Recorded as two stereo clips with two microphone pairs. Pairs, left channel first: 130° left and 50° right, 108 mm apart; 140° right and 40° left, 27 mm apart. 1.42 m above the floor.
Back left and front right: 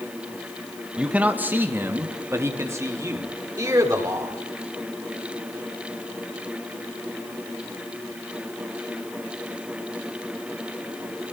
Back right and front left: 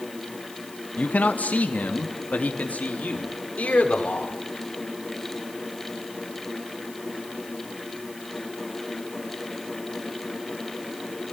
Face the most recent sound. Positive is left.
turn(degrees=-110)